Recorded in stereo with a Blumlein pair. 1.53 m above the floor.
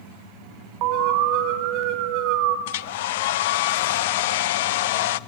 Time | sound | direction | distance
0.8 | an alarm | 40° right | 2.5 m
2.7 | a hair dryer | 55° left | 0.6 m